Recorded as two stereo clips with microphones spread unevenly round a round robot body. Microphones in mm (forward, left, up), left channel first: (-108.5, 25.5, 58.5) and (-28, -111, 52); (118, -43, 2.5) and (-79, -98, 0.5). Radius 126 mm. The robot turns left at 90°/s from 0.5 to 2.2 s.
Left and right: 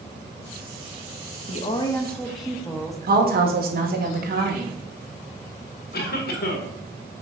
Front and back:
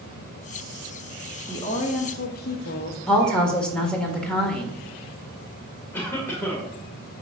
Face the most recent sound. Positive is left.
turn(degrees=100)